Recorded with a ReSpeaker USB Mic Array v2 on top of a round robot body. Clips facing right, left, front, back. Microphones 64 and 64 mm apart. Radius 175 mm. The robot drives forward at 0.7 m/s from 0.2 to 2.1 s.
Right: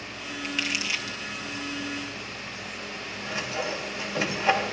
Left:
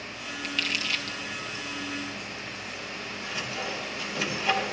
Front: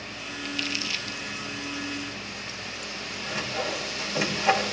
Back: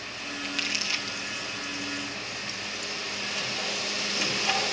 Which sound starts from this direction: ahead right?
Sawing, at 3.3 s.